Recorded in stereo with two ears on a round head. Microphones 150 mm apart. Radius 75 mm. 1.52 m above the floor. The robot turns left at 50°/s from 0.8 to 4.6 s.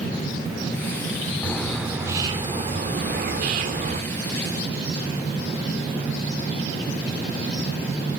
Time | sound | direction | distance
1.4 | a bird | 10° left | 1.6 m